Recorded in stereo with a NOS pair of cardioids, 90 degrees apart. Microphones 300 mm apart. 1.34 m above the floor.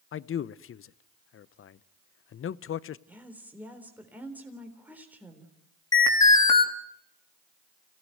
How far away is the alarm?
About 4 m.